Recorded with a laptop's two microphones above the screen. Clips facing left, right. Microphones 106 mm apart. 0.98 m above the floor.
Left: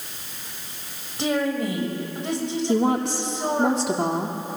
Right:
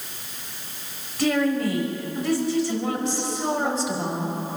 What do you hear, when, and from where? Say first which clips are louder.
1.2 s a woman speaking: right 2 dB; 20° left (ahead or behind), 6 m
2.7 s a woman speaking: left 5 dB; 65° left (ahead or behind), 2 m